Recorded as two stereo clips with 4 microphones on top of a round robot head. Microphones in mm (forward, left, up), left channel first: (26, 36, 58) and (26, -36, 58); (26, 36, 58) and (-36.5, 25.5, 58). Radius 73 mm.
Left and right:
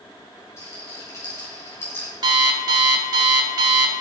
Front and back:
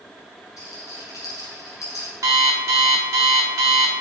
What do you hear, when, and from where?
0.6 s a rattle: 40° left, 5.5 m
2.2 s an alarm clock: 120° right, 1.3 m